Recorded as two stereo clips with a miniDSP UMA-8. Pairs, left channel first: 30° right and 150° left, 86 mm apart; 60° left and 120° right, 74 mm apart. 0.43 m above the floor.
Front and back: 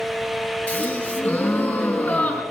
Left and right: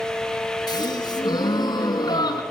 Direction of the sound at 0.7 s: 45° left.